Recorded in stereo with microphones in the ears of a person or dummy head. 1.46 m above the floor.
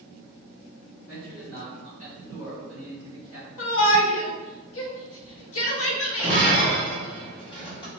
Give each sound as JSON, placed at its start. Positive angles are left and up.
{"t": 1.1, "sound": "a man speaking", "side_deg": 50, "distance_m": 1.7}
{"t": 3.6, "sound": "a shout", "side_deg": 70, "distance_m": 0.9}
{"t": 6.2, "sound": "breaking glass", "side_deg": 25, "distance_m": 1.3}